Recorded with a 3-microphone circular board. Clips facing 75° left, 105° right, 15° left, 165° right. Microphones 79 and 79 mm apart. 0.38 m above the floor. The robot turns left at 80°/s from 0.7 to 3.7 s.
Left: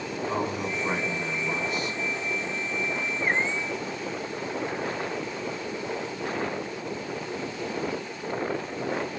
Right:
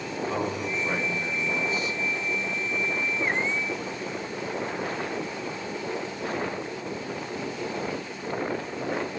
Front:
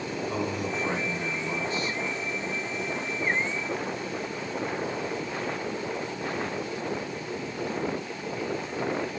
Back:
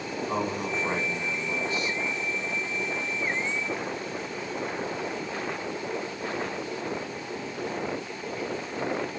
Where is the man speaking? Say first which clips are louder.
Left 1 dB, back 2 dB; 160° left, 3.5 m; by 2.0 s 55° left, 3.5 m.